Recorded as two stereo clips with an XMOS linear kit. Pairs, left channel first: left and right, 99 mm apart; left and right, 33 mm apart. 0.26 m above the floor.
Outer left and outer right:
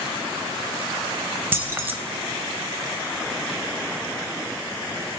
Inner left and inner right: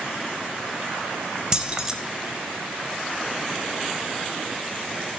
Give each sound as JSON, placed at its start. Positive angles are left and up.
{"t": 1.5, "sound": "keys jangling", "side_deg": -25, "distance_m": 0.6}